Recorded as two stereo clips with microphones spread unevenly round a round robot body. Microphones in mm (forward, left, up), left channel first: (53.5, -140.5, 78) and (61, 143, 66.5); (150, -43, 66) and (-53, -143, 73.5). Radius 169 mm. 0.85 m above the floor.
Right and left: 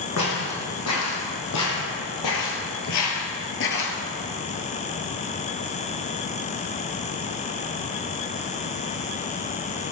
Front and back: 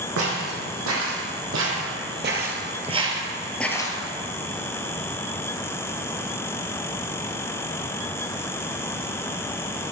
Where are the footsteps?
140° right, 3 m; by 4.0 s 40° right, 1.2 m.